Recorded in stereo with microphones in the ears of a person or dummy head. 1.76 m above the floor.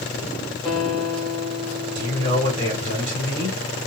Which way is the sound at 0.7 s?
5° right (ahead or behind).